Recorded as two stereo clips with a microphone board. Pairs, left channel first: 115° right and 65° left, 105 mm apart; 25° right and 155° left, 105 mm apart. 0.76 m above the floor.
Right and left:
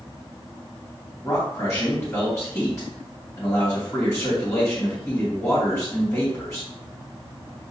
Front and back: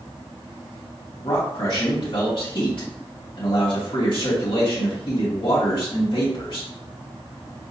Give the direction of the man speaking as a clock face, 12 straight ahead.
1 o'clock.